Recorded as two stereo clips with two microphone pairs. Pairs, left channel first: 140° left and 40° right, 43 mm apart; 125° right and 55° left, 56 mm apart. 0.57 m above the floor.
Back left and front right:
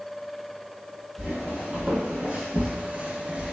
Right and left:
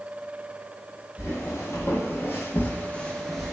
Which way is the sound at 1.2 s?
110° right.